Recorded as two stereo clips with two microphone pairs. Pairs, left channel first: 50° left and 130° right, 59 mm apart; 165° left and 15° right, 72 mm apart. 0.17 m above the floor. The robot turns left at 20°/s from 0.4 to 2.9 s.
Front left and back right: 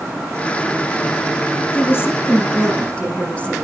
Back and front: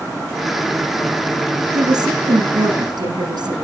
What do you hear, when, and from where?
1.7 s a woman speaking: 10° left, 9.5 m; by 3.6 s 15° right, 9.5 m